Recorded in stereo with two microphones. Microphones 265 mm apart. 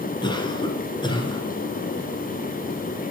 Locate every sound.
0.2 s a cough: 15° left (ahead or behind), 1.8 m